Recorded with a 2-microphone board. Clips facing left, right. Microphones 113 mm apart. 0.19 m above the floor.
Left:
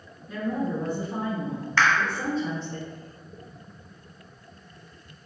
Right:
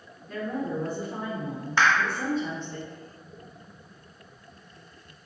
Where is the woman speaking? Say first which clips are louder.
Left 2 dB; 5° left (ahead or behind), 1.8 m; by 2.8 s 45° left (ahead or behind), 2.0 m.